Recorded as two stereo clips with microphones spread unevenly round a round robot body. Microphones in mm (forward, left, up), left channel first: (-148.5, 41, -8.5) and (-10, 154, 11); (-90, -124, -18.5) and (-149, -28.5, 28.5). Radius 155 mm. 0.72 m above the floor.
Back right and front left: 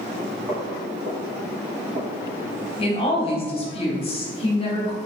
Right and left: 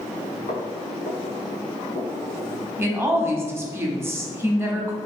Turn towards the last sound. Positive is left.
turn(degrees=-150)